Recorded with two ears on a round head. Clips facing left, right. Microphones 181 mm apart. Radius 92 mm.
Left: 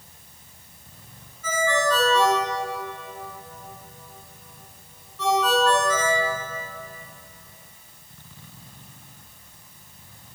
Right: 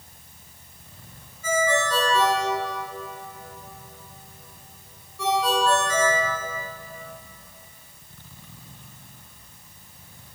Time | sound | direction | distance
1.4 | a ringtone | 10° right (ahead or behind) | 7.5 m